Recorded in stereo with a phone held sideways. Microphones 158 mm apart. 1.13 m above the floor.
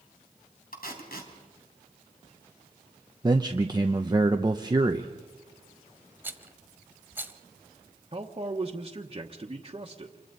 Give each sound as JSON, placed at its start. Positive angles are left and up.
{"t": 0.7, "sound": "tape being pulled", "side_deg": 70, "distance_m": 3.5}
{"t": 3.2, "sound": "a man speaking", "side_deg": -25, "distance_m": 0.9}
{"t": 6.2, "sound": "a rattle", "side_deg": -15, "distance_m": 1.1}
{"t": 8.1, "sound": "a man speaking", "side_deg": -35, "distance_m": 1.2}